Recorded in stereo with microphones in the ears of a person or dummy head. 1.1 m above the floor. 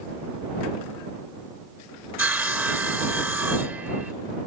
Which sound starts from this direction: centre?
Sawing, at 2.2 s.